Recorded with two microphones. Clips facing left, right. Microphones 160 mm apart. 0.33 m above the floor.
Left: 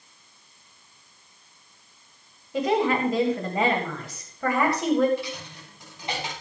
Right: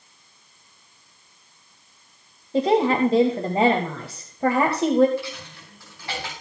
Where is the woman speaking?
30° right (ahead or behind), 1.9 m.